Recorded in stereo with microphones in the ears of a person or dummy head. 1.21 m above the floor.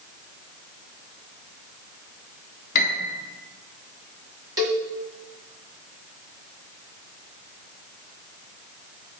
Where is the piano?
45° left (ahead or behind), 1.2 m.